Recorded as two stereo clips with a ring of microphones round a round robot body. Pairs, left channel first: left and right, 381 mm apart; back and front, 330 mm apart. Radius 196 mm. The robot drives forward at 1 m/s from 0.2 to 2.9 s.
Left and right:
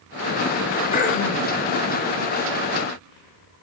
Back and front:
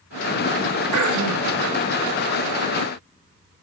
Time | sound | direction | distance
0.9 | throat clearing | 20° left | 4.5 m